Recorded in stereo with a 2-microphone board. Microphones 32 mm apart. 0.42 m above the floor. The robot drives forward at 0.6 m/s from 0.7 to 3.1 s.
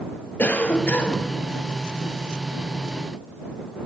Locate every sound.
0.4 s a cough: 55° left (ahead or behind), 2.0 m; by 1.3 s 50° left (ahead or behind), 2 m